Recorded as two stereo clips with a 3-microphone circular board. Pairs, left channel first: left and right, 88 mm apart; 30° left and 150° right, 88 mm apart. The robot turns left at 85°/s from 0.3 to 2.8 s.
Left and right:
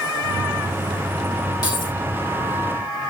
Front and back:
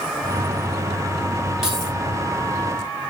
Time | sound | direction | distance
1.6 | keys jangling | 130° left | 3 m